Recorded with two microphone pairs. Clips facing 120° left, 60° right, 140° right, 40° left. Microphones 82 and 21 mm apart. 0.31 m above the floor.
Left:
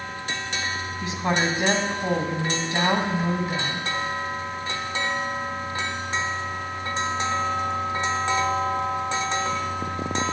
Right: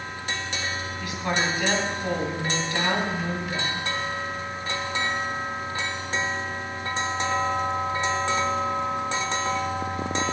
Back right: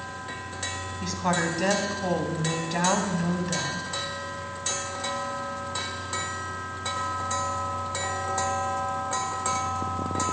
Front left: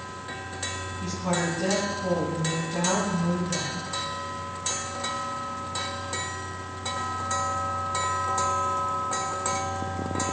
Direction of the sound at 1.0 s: Straight behind.